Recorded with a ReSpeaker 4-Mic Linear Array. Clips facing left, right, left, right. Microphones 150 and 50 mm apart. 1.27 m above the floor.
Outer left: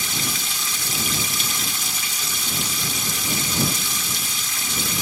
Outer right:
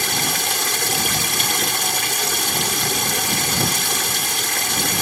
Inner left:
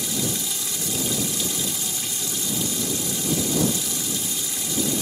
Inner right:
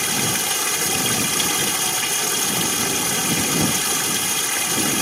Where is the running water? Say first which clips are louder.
Outer right 6 dB, inner right 5 dB; 70° right (ahead or behind).